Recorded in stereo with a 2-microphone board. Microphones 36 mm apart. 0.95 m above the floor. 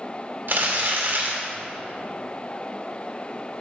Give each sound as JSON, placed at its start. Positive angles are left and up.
{"t": 0.5, "sound": "crumpling", "side_deg": -65, "distance_m": 2.5}